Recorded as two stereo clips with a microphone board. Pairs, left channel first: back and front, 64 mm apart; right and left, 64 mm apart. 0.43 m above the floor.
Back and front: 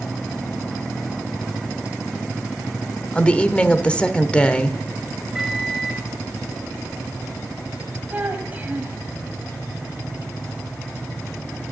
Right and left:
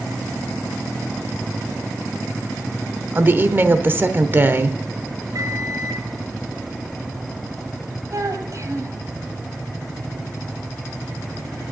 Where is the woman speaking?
120° left, 0.9 m.